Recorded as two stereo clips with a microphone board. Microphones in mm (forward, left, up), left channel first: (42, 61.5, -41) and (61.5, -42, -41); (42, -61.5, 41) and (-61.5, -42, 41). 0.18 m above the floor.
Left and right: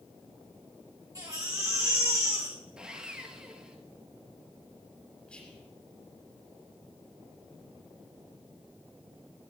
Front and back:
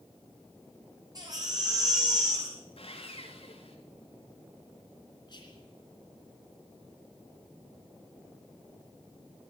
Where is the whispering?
25° left, 2.5 m.